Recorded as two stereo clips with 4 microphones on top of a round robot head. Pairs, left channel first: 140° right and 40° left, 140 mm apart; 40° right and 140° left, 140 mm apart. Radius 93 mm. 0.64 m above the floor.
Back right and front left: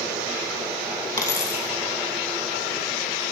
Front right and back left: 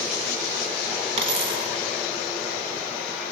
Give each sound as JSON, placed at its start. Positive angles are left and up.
{"t": 1.2, "sound": "a dropped coin", "azimuth_deg": 165, "distance_m": 0.6}